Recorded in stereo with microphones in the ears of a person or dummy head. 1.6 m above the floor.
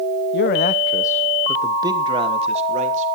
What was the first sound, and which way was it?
A man speaking, 65° left (ahead or behind).